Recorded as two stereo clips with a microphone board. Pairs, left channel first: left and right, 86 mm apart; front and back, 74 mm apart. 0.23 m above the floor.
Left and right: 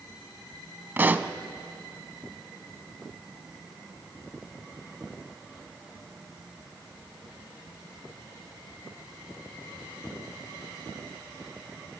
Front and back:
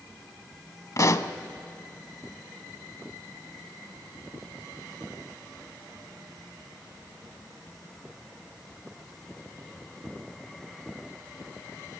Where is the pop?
30° right, 0.7 m.